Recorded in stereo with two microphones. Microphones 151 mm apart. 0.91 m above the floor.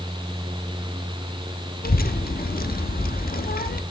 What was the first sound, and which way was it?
A child speaking, 80° left.